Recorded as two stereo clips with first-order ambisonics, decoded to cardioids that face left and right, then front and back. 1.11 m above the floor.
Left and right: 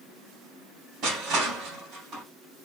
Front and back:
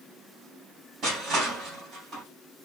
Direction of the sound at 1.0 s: 125° right.